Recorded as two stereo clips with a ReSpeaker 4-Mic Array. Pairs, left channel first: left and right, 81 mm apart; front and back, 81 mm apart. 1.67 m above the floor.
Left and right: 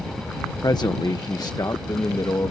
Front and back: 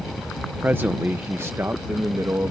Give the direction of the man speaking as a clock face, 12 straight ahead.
8 o'clock.